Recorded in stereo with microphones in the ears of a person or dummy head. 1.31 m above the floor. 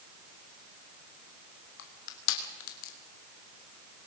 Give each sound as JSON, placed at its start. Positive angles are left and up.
{"t": 1.8, "sound": "crushing", "side_deg": 85, "distance_m": 3.0}